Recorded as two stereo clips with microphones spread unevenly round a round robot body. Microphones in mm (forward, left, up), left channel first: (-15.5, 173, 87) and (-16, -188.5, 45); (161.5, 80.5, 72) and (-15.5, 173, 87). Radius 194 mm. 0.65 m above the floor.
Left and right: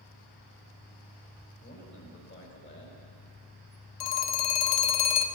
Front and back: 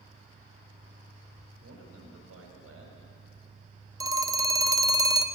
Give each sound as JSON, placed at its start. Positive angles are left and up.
{"t": 1.6, "sound": "a man speaking", "azimuth_deg": 155, "distance_m": 4.0}
{"t": 4.0, "sound": "a phone ringing", "azimuth_deg": 75, "distance_m": 1.3}